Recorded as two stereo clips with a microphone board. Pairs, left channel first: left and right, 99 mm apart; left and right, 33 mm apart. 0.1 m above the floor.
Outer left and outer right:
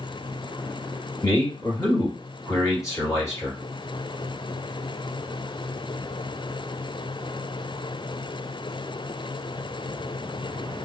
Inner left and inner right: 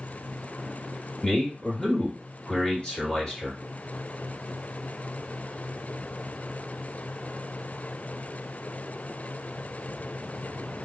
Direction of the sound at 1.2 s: 30° left (ahead or behind).